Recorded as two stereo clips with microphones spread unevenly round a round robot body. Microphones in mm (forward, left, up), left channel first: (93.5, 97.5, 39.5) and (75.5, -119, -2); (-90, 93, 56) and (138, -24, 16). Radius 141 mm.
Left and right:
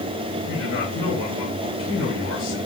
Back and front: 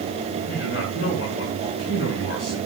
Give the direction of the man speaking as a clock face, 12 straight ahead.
8 o'clock.